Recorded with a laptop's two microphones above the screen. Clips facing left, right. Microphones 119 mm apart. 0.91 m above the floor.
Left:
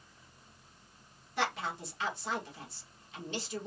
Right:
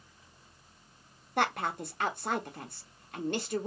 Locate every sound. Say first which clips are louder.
1.4 s a woman speaking: right 4 dB; 55° right (ahead or behind), 0.9 m